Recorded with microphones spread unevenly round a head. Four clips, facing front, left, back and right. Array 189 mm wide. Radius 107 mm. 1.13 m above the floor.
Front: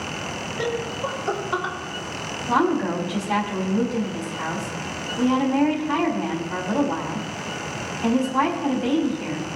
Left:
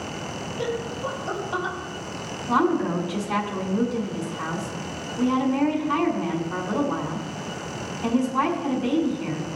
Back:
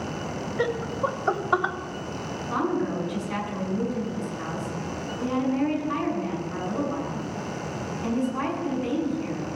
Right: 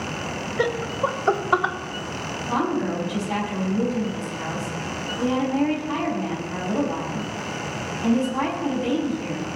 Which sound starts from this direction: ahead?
A woman speaking, at 2.5 s.